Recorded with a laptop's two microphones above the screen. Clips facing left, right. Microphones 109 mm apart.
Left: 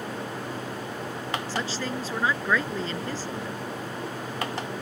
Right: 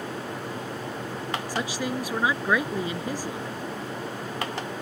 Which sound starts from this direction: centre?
A woman speaking, at 1.5 s.